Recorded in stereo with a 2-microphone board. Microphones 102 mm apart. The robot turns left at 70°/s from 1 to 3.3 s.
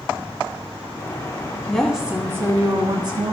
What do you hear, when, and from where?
1.7 s a woman speaking: 15° left, 1.4 m; by 3.3 s 100° right, 1.4 m